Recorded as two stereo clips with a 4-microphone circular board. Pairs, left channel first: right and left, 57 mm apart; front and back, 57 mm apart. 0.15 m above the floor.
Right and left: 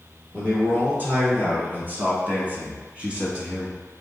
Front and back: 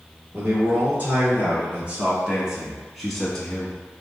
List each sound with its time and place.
0.3 s a man speaking: 140° left, 2.0 m; by 3.8 s 40° left, 1.1 m